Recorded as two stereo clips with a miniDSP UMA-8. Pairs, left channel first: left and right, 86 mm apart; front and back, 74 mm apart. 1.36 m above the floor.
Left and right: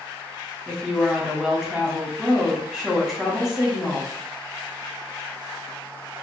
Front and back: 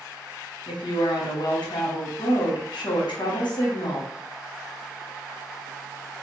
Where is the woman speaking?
Straight ahead, 1.0 m.